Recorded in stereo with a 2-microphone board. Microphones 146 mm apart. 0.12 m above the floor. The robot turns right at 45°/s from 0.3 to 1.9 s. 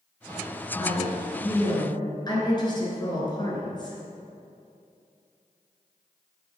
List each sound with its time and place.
0.8 s a woman speaking: 75° left, 1.8 m; by 4.0 s 125° left, 1.8 m